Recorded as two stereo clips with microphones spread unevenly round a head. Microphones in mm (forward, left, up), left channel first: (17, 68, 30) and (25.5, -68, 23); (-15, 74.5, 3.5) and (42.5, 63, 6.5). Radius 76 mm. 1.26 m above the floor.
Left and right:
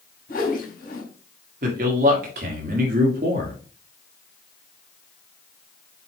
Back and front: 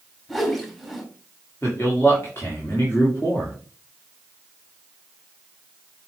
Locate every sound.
0.3 s a whoosh: 80° left, 3.5 m
1.6 s a man speaking: 115° right, 2 m